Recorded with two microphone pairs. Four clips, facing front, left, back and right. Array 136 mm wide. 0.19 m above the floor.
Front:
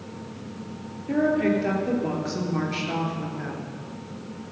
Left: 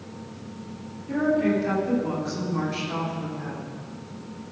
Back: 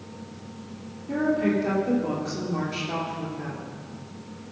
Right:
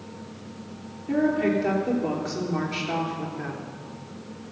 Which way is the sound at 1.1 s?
40° right.